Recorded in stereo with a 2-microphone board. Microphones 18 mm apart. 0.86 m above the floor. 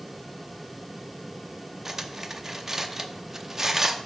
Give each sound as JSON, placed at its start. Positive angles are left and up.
{"t": 1.9, "sound": "cutlery clinking", "side_deg": -25, "distance_m": 0.6}